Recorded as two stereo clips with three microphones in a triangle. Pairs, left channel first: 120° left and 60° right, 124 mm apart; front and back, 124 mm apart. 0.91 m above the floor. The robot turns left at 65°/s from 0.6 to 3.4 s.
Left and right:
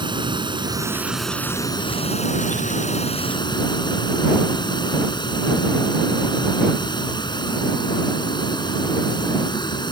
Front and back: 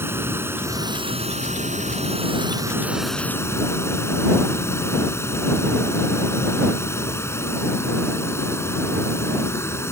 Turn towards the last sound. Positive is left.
turn(degrees=65)